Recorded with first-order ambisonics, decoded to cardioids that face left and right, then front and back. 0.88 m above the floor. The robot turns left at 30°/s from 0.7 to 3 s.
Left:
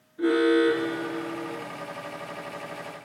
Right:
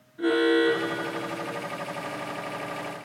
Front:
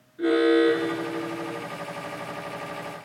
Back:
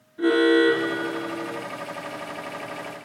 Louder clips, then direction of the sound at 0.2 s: Left 1 dB, back 2 dB; 160° right.